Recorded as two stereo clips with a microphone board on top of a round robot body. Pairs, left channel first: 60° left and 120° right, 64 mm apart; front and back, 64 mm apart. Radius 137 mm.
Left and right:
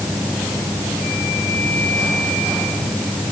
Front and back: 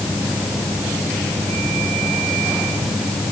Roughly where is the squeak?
No squeak in this recording.